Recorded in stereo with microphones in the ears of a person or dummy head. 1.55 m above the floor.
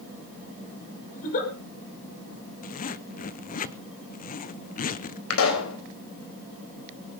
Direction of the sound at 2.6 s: 45° left (ahead or behind).